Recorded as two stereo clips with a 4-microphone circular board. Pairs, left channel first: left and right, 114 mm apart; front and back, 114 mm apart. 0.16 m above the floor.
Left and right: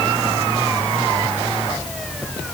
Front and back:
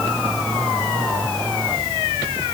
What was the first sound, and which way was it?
Only background noise.